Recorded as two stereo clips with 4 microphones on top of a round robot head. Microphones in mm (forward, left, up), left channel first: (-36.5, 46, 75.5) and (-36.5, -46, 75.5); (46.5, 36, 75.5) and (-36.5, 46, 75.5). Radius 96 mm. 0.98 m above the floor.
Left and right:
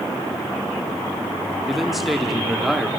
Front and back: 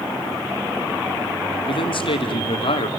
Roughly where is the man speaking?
Ahead.